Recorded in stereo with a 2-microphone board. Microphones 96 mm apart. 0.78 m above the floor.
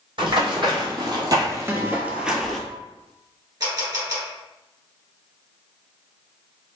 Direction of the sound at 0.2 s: 60° right (ahead or behind).